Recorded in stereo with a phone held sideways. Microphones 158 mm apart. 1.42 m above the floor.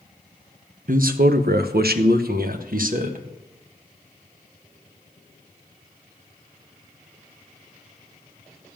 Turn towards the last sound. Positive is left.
turn(degrees=-55)  # may be behind; listen again after turning